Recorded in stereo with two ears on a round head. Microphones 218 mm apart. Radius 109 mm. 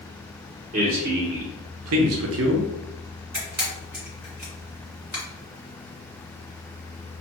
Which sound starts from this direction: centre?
A camera shutter, at 3.3 s.